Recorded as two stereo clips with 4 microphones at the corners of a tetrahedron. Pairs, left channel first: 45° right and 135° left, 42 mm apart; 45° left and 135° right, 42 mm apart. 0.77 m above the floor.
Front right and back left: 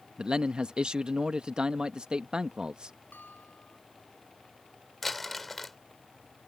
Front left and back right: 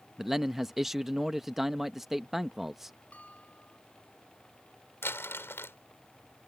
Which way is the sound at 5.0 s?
40° left.